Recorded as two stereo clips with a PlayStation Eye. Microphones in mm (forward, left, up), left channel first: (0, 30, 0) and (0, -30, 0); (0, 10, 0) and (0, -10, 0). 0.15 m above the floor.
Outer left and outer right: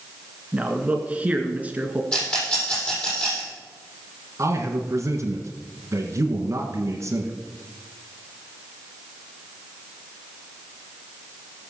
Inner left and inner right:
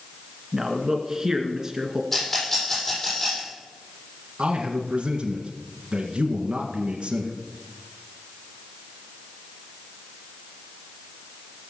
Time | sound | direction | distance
0.5 | a man speaking | 20° right (ahead or behind) | 2 m
2.1 | a rattle | 20° left (ahead or behind) | 6.5 m
4.4 | a man speaking | 50° right (ahead or behind) | 1.9 m